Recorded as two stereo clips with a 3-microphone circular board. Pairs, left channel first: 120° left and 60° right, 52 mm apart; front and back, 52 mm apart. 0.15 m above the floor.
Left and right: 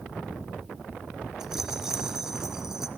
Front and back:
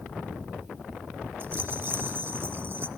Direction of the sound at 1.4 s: 140° right.